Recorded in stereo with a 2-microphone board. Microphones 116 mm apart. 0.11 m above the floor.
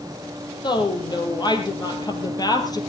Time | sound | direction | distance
0.6 | a woman speaking | 40° left (ahead or behind) | 3.5 m